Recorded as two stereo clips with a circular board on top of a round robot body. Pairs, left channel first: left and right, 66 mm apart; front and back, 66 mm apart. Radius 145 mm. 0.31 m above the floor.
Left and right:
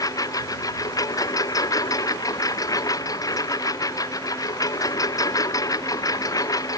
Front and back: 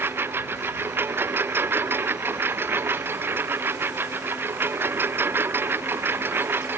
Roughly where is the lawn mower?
Behind left.